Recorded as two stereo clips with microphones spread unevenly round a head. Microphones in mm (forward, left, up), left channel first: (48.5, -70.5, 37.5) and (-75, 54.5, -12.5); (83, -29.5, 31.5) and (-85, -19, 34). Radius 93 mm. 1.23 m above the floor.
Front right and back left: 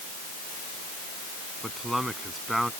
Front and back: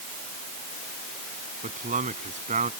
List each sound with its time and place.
1.6 s a man speaking: 135° right